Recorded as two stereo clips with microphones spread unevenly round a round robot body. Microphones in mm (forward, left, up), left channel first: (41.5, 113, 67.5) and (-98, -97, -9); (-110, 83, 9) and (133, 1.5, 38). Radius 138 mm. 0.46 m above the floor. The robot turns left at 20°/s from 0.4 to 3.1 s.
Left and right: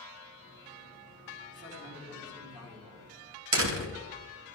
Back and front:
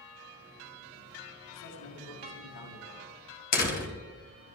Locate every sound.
1.5 s a man speaking: straight behind, 5 m; by 3.1 s 150° left, 5 m
3.5 s a door slam: 145° right, 2.5 m